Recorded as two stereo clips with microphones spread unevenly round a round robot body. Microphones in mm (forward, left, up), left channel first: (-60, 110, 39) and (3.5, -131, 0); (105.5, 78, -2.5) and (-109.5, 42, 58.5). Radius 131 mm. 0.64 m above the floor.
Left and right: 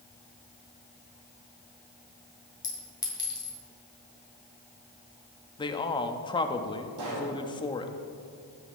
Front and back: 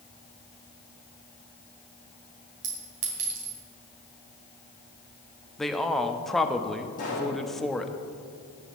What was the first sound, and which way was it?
A clink, straight behind.